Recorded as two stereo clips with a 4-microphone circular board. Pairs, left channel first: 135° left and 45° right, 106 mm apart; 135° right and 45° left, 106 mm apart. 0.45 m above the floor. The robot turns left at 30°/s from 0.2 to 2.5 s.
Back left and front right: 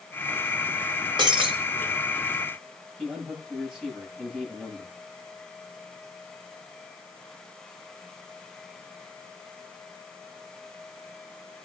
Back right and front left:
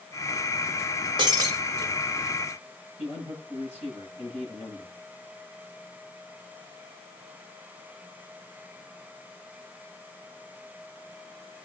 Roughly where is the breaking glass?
Ahead.